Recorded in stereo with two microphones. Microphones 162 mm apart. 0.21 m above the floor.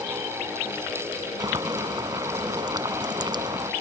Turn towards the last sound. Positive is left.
turn(degrees=-25)  # may be behind; listen again after turning